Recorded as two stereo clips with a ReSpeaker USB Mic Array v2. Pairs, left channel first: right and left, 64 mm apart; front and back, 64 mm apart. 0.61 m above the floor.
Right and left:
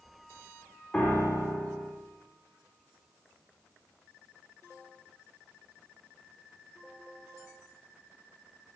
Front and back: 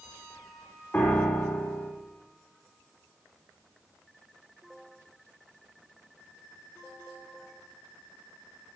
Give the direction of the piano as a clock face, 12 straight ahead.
1 o'clock.